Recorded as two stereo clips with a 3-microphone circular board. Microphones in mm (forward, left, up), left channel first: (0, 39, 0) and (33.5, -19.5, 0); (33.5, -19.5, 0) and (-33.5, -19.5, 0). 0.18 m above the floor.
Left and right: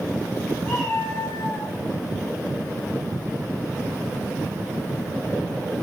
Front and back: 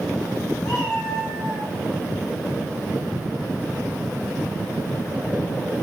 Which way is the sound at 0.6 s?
60° left.